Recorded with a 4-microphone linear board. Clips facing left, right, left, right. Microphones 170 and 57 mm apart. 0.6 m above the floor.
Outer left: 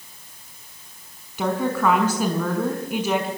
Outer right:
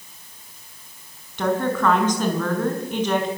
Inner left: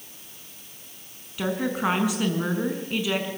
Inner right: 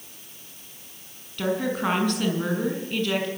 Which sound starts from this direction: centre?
A woman speaking, at 1.4 s.